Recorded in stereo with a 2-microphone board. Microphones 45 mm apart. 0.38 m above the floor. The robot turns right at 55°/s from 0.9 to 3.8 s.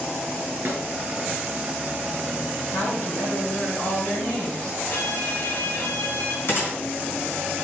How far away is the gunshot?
About 3.5 m.